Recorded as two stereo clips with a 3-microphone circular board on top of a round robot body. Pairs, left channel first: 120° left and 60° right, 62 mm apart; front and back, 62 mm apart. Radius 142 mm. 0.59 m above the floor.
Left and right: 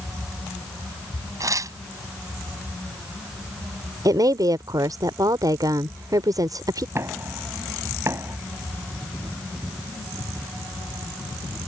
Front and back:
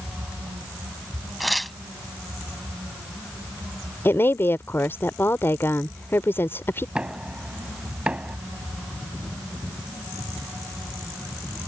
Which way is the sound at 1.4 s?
90° right.